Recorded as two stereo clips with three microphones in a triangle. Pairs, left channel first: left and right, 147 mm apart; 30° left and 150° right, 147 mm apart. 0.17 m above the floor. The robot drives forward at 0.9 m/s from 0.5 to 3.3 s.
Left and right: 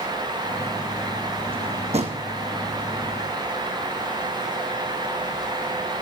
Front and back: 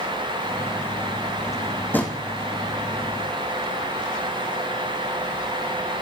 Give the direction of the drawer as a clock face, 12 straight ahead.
1 o'clock.